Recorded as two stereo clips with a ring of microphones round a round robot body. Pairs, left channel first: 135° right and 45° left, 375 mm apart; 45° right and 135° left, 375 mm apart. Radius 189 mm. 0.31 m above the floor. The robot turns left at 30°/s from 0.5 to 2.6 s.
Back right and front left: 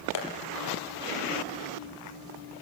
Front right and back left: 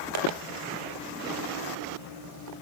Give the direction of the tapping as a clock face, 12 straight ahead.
6 o'clock.